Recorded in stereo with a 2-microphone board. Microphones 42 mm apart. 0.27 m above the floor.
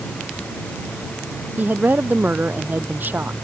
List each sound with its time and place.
1.6 s a woman speaking: 45° right (ahead or behind)